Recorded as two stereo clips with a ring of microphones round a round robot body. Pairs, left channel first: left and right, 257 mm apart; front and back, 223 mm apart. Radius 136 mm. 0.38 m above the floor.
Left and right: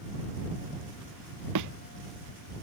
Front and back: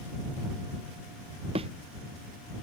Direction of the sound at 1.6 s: 110° right.